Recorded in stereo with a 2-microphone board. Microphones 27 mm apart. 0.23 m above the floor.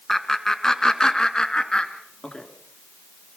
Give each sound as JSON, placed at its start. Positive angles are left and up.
{"t": 0.1, "sound": "laughter", "side_deg": 10, "distance_m": 2.5}